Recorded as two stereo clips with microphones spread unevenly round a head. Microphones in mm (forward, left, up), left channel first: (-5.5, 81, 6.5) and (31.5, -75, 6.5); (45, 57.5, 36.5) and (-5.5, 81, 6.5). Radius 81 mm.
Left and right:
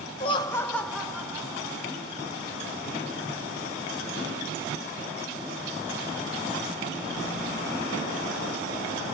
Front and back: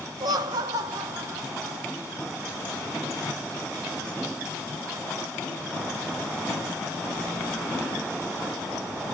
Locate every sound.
0.2 s laughter: 160° left, 0.5 m; by 1.9 s 150° right, 1.3 m